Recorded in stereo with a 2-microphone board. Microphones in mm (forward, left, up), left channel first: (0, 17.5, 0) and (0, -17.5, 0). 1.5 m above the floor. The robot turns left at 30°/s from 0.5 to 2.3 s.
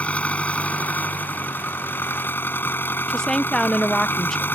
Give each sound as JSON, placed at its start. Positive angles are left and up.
{"t": 0.0, "sound": "an engine running", "azimuth_deg": 140}
{"t": 3.1, "sound": "a woman speaking", "side_deg": 15}